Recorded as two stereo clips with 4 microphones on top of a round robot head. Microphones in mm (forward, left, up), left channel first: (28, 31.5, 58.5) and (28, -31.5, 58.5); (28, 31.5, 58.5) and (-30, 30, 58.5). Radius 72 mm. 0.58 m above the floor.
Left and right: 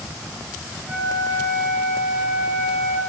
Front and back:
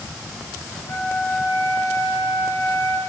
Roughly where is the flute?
Ahead right.